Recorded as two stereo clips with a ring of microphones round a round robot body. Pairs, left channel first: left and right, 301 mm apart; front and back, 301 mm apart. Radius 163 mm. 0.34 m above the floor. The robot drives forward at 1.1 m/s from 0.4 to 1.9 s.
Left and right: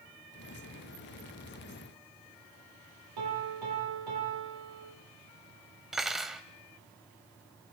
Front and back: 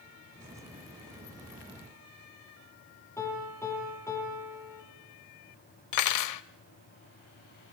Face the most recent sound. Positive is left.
turn(degrees=0)